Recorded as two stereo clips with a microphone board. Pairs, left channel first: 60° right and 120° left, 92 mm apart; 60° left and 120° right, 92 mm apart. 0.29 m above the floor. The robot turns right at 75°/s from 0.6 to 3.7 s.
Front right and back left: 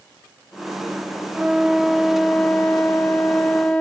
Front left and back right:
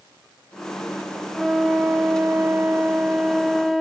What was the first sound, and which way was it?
A flute, 160° left.